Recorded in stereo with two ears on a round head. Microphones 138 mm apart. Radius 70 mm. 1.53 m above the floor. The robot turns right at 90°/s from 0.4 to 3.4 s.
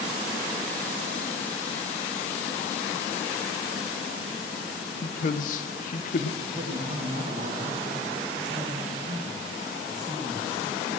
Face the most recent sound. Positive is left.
turn(degrees=-50)  # may be behind; listen again after turning